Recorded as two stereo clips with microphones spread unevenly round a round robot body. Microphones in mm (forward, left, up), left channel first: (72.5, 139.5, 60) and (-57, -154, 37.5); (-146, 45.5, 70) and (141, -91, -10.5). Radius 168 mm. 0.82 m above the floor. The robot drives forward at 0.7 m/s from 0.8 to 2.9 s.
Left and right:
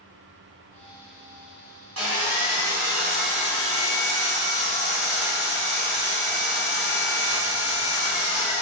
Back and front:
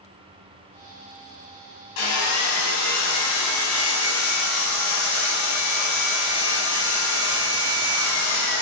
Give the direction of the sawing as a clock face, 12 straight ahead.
5 o'clock.